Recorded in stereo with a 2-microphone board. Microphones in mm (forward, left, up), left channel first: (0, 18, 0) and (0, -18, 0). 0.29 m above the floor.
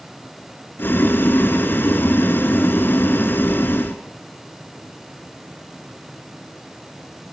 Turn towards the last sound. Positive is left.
turn(degrees=75)  # may be behind; listen again after turning